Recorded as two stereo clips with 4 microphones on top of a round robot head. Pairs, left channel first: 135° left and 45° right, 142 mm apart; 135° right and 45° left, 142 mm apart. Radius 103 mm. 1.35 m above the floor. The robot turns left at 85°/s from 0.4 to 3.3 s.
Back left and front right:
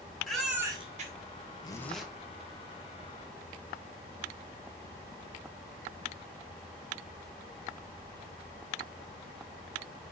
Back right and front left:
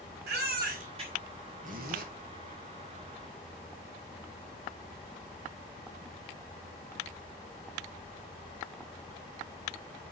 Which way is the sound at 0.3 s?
45° left.